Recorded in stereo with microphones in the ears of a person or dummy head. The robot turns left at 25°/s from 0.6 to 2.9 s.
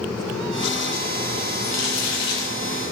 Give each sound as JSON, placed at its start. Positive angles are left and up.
{"t": 1.6, "sound": "crumpling", "side_deg": 65, "distance_m": 1.4}